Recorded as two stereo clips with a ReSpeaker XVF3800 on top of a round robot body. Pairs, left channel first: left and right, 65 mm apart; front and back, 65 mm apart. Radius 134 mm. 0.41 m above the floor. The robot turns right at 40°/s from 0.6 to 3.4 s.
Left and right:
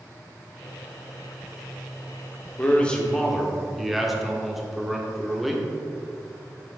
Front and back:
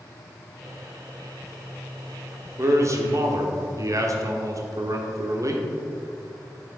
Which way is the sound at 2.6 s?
150° left.